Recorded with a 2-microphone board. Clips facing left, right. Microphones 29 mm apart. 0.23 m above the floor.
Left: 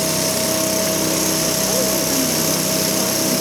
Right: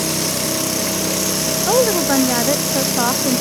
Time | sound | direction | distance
1.7 | a woman speaking | 50° right (ahead or behind) | ?